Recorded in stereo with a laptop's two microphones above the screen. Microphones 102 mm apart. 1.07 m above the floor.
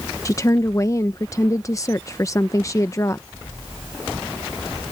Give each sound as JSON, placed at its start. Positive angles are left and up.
{"t": 0.2, "sound": "a woman speaking", "side_deg": 30}